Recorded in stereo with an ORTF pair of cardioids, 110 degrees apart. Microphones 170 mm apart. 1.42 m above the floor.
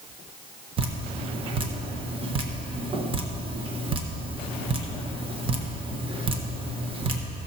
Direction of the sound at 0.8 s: 30° right.